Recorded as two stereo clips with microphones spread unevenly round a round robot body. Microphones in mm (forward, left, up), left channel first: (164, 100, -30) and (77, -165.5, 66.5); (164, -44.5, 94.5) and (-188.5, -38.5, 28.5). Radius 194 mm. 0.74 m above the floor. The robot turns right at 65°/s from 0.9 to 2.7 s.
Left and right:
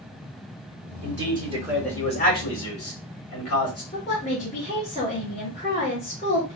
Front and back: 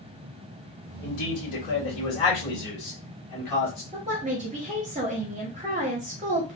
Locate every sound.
1.0 s a man speaking: 65° right, 2 m; by 3.8 s 45° left, 2 m
3.9 s a woman speaking: 120° left, 0.8 m